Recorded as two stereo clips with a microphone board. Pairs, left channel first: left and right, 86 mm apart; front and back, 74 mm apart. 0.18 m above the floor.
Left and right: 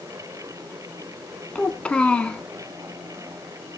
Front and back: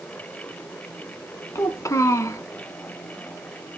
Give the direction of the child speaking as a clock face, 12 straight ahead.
11 o'clock.